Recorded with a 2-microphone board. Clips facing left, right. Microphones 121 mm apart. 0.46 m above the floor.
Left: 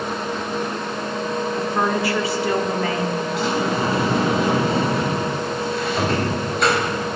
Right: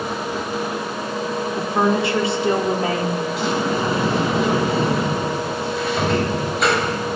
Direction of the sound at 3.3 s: Centre (ahead or behind).